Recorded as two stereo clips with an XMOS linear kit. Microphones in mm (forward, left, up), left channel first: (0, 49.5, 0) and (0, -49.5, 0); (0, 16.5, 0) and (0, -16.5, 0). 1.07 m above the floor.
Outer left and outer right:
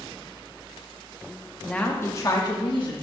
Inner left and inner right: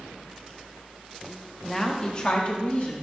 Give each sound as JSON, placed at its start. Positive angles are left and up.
{"t": 1.6, "sound": "a woman speaking", "side_deg": 5, "distance_m": 0.9}